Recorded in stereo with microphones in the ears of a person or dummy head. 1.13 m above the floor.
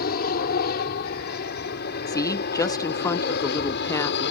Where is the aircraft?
60° left (ahead or behind); by 4.3 s 65° left (ahead or behind).